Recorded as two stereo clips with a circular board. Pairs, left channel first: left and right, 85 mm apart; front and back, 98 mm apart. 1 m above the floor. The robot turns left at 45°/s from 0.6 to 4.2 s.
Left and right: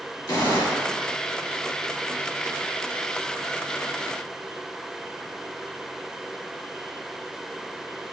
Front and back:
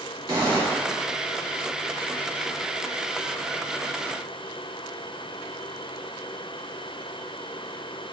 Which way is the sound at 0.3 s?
130° left.